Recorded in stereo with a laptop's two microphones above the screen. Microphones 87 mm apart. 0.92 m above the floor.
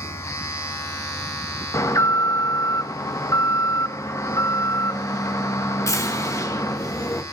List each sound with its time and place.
0.0 s a machine running: 30° left (ahead or behind), 4 m
1.7 s an alarm: 35° left (ahead or behind), 0.9 m